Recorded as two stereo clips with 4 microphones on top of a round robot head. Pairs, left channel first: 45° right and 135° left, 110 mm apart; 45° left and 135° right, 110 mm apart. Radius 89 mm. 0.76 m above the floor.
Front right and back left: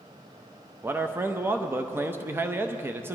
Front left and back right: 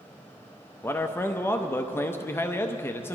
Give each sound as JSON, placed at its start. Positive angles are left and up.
{"t": 0.8, "sound": "a man speaking", "azimuth_deg": 90, "distance_m": 0.7}